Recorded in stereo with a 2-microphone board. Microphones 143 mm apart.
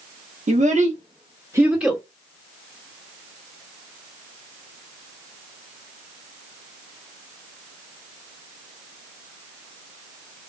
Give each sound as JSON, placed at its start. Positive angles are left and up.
{"t": 0.5, "sound": "a child speaking", "side_deg": -50, "distance_m": 1.1}